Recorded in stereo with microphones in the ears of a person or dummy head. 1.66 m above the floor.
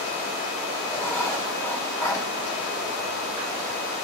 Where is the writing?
10° left (ahead or behind), 1.7 m.